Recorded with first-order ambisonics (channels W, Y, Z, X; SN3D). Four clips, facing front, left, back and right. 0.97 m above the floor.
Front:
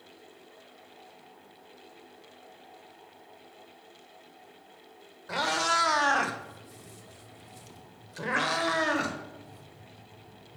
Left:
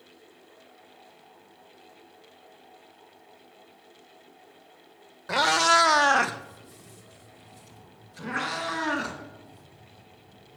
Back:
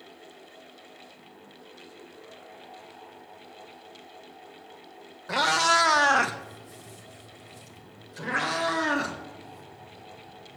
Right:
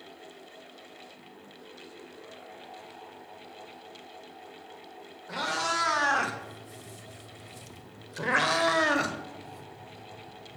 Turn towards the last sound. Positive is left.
turn(degrees=-75)